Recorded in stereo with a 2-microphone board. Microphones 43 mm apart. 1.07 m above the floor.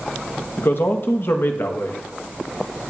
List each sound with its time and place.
0.6 s a man speaking: 60° left (ahead or behind), 1.1 m